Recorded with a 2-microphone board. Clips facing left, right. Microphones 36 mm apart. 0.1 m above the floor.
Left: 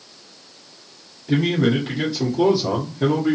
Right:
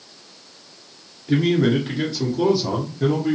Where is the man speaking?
Centre (ahead or behind), 1.7 m; by 3.4 s 5° left (ahead or behind), 2.5 m.